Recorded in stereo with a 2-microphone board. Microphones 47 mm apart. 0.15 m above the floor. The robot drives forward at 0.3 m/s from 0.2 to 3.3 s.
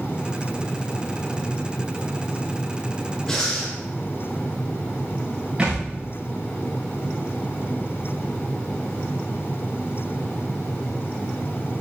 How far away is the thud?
About 5 m.